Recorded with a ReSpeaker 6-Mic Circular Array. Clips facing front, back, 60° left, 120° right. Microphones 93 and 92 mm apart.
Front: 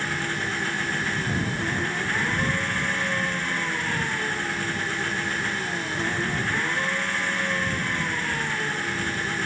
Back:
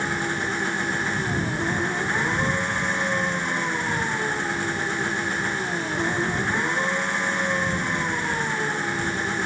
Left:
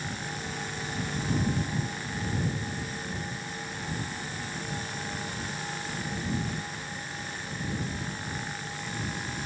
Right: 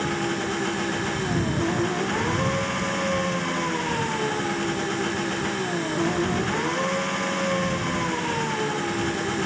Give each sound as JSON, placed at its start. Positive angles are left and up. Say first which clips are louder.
{"t": 0.0, "sound": "an engine running", "louder": "back 3 dB, right 11 dB", "azimuth_deg": -110}